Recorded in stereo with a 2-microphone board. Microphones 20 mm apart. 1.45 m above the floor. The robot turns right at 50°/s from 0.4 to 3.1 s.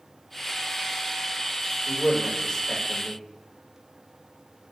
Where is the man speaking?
80° left, 2.5 m; by 3.2 s 20° left (ahead or behind), 2.5 m.